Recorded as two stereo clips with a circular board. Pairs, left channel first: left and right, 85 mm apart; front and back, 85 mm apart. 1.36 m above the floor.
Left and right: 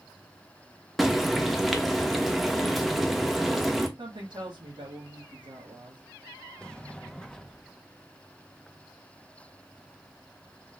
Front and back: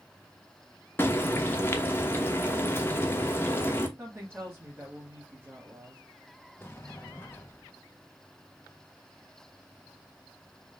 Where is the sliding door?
20° left, 0.7 m.